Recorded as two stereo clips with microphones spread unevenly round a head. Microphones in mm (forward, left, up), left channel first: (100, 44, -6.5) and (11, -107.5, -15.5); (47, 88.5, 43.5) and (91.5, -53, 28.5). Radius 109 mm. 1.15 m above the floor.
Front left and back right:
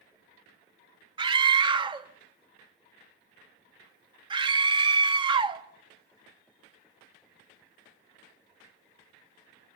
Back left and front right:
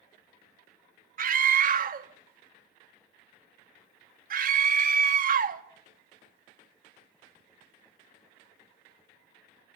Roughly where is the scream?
Ahead right.